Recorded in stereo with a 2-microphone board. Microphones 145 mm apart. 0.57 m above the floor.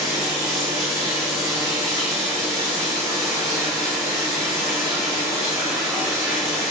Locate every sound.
0.0 s running water: centre (ahead or behind), 3.5 m